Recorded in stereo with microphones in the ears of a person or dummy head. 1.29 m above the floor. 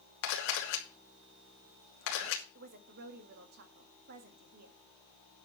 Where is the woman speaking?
50° right (ahead or behind), 1.7 m.